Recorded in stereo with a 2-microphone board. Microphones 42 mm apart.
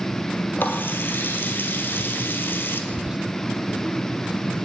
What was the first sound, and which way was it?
A running tap, 55° left (ahead or behind).